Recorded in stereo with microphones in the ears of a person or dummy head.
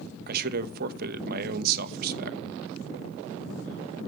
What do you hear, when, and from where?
0.3 s a man speaking: 50° right (ahead or behind), 1.2 m